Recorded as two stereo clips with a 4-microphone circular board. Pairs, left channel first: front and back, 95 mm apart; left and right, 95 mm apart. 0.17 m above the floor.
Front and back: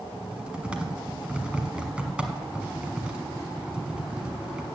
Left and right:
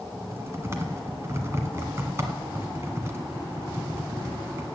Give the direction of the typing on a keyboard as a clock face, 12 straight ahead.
4 o'clock.